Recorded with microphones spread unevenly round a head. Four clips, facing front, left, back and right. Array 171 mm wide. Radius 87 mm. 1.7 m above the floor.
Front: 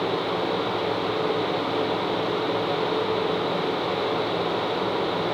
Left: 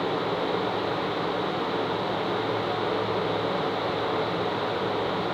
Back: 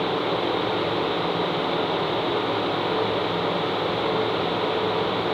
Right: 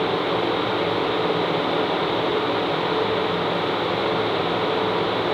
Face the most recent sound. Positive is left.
No sound to turn to.